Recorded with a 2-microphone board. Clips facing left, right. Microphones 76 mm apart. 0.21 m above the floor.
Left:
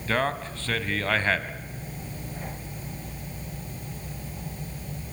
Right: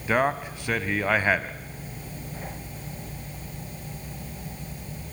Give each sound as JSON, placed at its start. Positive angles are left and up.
{"t": 0.1, "sound": "a man speaking", "side_deg": -15, "distance_m": 1.0}